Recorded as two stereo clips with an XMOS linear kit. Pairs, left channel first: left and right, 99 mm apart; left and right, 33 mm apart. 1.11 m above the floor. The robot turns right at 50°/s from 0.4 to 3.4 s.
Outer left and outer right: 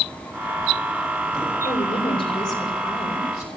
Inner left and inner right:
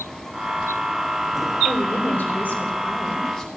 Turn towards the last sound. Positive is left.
turn(degrees=160)